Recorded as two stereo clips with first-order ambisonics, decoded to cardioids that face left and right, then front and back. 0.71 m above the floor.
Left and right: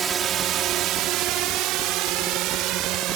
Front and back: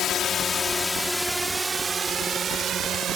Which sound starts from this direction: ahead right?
A drone, at 0.0 s.